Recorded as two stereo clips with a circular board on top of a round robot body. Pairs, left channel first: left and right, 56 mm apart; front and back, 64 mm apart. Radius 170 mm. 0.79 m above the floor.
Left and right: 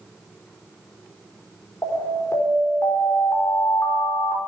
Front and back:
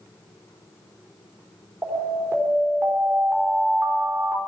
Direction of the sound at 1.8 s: 130° left.